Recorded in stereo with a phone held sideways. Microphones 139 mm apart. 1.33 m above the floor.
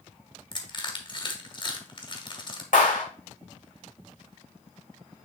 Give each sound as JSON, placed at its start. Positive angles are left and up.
{"t": 0.5, "sound": "crushing", "side_deg": 35, "distance_m": 1.5}
{"t": 2.7, "sound": "a clap", "side_deg": 80, "distance_m": 3.5}